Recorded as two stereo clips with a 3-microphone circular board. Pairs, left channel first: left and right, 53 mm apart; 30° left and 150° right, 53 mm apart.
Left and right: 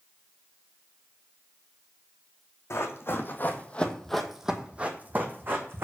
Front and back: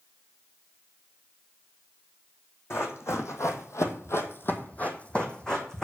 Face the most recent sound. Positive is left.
turn(degrees=-50)